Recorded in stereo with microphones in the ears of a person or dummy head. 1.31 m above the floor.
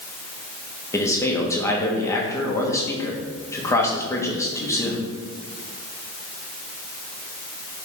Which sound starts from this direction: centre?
A man speaking, at 0.9 s.